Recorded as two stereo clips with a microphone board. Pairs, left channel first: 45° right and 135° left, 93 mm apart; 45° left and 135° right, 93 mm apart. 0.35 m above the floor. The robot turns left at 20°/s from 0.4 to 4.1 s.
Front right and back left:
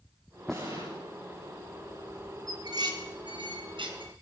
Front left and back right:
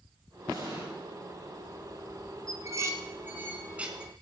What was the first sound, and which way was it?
An explosion, straight behind.